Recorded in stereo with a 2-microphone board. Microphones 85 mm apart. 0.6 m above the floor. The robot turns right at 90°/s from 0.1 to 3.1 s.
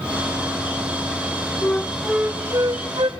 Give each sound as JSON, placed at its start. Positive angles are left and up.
{"t": 1.6, "sound": "a flute", "azimuth_deg": 145, "distance_m": 0.8}